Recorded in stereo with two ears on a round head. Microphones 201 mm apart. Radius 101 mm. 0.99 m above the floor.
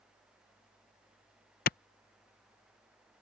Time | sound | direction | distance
1.7 | a clap | 45° left (ahead or behind) | ?